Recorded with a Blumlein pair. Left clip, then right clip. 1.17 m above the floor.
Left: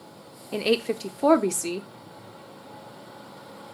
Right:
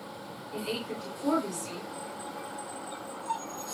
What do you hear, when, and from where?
0.5 s a woman speaking: 40° left, 0.6 m